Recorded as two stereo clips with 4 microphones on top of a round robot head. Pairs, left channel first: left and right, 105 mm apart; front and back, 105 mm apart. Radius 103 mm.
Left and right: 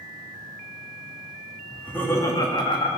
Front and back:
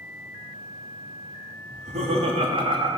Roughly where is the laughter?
Behind.